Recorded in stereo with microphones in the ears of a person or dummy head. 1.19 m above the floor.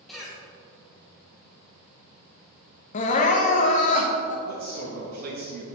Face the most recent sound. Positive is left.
turn(degrees=-55)  # may be behind; listen again after turning